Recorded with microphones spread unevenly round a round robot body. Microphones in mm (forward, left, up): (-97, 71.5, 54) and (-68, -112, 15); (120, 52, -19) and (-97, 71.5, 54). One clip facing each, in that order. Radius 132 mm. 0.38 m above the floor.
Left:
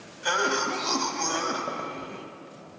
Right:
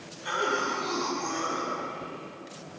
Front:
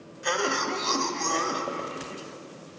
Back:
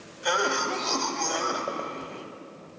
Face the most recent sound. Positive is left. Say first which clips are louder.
# left 2 dB, even
turn(degrees=75)